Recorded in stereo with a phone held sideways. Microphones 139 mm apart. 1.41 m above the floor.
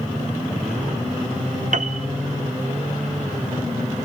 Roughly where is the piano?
Right.